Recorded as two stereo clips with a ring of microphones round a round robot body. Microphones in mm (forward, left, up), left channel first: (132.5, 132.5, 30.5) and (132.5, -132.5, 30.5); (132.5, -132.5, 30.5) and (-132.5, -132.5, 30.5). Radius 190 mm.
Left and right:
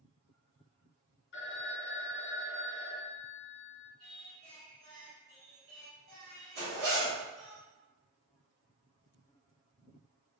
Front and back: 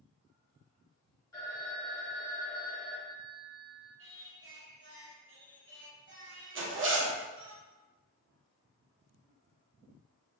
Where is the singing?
140° right, 0.9 m.